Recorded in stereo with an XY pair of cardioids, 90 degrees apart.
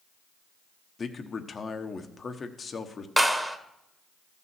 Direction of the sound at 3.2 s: 5° right.